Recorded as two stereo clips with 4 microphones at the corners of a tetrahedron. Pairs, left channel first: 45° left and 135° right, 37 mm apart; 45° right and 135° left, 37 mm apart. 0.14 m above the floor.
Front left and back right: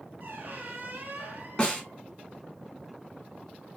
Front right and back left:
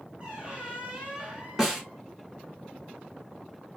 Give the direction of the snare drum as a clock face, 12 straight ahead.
10 o'clock.